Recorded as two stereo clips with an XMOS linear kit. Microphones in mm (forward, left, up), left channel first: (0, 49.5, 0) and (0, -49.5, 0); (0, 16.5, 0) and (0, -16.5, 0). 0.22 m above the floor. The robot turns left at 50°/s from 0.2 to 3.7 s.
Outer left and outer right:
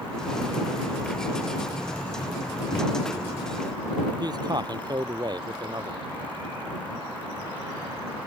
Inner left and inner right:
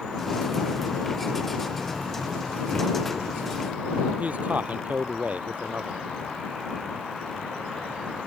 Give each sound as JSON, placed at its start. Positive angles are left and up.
{"t": 2.7, "sound": "a microwave", "side_deg": 50}
{"t": 4.2, "sound": "a man speaking", "side_deg": -45}